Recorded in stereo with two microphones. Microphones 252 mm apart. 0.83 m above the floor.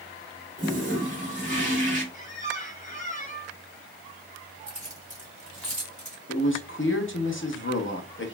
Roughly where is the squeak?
Left.